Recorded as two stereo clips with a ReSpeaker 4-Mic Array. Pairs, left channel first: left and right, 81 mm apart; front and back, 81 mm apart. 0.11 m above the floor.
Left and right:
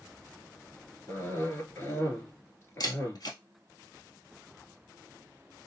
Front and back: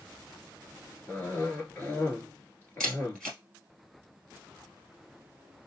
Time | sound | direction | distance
1.1 | a cough | 50° left | 1.8 m
2.8 | a camera shutter | 80° left | 1.6 m